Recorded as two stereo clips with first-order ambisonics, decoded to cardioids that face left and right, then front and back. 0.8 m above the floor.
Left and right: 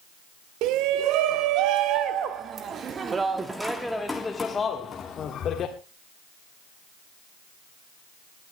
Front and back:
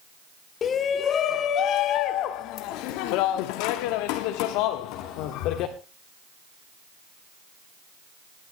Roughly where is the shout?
Ahead right.